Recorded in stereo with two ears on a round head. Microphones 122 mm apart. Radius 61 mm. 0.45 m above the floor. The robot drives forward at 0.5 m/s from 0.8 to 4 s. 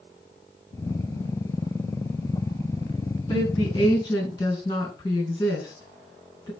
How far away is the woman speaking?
About 4 m.